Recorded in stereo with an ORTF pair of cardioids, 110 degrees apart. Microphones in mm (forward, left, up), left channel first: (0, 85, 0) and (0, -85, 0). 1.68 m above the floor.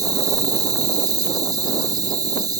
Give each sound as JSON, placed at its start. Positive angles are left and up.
{"t": 0.0, "sound": "an insect", "azimuth_deg": -20}